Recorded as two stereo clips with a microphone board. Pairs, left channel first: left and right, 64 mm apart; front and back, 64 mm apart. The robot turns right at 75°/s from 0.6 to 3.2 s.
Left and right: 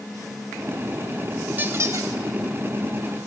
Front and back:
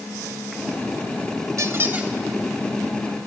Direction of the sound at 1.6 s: 145° right.